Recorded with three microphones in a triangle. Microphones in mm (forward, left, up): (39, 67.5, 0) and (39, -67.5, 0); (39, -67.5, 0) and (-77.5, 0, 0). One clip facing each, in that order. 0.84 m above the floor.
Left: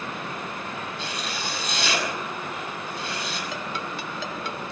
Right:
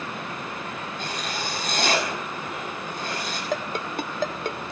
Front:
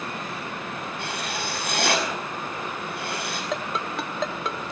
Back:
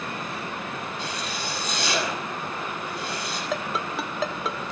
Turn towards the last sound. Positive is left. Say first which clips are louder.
# right 4 dB, back 1 dB
turn(degrees=-125)